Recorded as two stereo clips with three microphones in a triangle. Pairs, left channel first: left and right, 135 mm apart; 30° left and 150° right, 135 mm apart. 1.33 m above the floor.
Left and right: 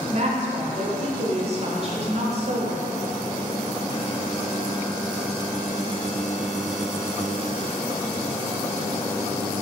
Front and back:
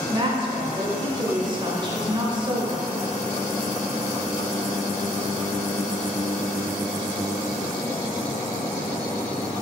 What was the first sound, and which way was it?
A woman speaking, 105° right.